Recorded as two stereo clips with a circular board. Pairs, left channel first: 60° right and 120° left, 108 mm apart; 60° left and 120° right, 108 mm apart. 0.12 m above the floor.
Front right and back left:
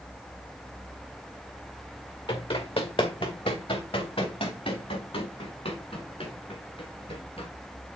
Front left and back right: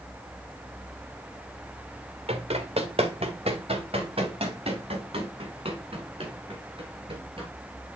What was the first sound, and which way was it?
Running footsteps, 95° right.